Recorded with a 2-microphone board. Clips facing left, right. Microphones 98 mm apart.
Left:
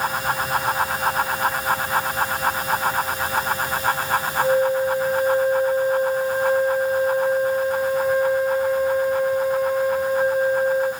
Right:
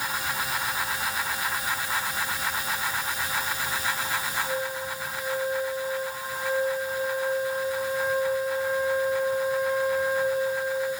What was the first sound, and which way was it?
A flute, 70° left (ahead or behind).